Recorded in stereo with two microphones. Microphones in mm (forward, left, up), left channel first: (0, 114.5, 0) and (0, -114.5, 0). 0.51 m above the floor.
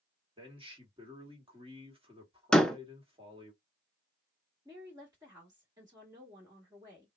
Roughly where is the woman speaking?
Centre.